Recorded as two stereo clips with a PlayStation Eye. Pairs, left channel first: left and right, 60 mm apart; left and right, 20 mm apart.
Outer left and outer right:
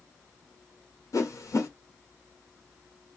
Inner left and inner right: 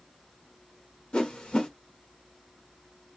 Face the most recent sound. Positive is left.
turn(degrees=65)  # may be behind; listen again after turning